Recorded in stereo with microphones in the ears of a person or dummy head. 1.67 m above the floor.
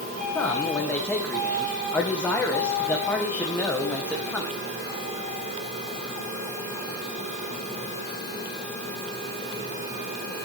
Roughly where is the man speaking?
Centre.